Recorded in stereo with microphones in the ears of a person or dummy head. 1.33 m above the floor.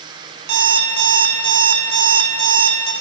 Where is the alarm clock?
75° right (ahead or behind), 1.9 m.